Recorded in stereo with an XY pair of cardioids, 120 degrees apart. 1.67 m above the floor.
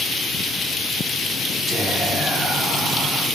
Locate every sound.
1.7 s whispering: straight ahead, 2.0 m